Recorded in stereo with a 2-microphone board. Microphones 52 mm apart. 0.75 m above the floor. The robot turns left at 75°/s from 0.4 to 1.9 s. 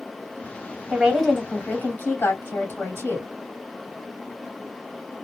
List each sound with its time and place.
0.9 s a woman speaking: 160° right, 2.0 m; by 3.3 s 125° left, 2.0 m